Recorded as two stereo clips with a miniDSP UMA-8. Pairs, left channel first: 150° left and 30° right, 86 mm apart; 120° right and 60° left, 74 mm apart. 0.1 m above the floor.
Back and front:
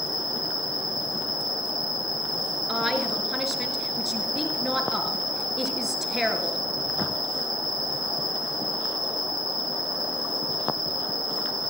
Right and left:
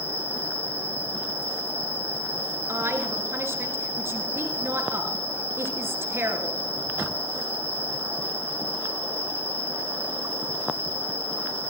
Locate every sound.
0.0 s an insect: 5° left, 1.7 m
2.7 s a woman speaking: 55° left, 1.4 m